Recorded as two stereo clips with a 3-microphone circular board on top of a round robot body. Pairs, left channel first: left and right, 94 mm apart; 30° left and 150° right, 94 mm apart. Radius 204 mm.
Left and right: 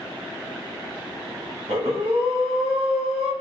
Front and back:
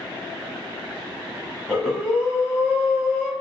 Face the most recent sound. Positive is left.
turn(degrees=-55)